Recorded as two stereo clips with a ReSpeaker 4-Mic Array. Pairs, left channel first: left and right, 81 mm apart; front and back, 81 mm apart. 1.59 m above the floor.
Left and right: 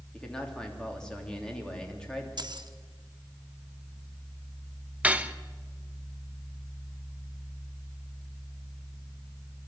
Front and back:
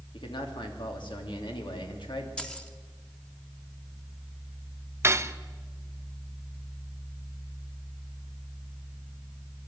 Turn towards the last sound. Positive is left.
turn(degrees=-155)